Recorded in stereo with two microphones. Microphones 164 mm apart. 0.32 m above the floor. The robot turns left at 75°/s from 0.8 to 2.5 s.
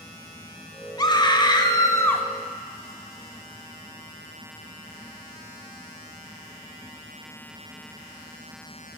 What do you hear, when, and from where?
1.0 s a scream: 25° left (ahead or behind), 1.0 m; by 2.2 s 10° left (ahead or behind), 1.0 m